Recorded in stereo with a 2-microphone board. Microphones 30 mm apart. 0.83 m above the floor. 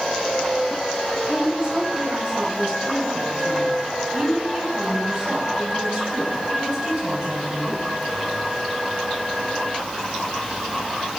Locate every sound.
1.3 s a woman speaking: 10° right (ahead or behind), 8.5 m; by 7.8 s 25° right (ahead or behind), 5 m